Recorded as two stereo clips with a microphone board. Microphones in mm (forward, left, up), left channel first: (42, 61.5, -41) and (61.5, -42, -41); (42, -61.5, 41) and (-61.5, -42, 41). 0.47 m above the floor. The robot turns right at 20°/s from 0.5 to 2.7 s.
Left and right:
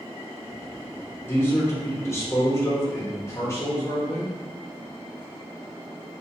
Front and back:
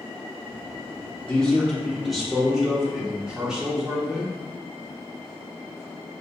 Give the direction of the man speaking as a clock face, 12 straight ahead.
10 o'clock.